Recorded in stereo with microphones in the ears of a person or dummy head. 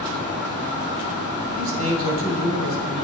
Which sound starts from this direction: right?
A man speaking, at 1.6 s.